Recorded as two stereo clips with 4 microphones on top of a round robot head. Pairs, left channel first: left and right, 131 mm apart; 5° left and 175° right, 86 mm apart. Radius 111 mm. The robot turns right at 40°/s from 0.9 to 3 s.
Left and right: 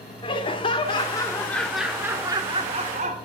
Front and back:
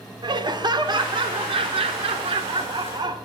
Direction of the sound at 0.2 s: 145° left.